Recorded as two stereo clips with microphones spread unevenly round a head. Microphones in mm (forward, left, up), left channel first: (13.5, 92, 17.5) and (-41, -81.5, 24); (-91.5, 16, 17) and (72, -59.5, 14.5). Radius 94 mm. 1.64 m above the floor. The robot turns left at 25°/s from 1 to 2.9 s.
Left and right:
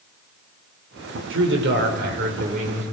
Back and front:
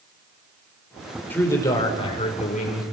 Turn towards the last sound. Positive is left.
turn(degrees=-165)